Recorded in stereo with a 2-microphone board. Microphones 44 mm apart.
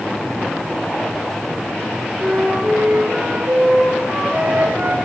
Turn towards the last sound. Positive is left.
turn(degrees=-45)  # may be behind; listen again after turning